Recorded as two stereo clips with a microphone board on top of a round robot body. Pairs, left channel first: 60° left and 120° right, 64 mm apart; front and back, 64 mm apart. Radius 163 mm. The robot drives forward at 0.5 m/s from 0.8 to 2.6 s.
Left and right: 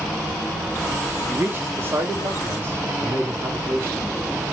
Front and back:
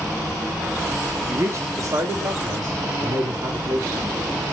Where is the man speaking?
155° right, 0.9 m; by 4.2 s 170° right, 1.3 m.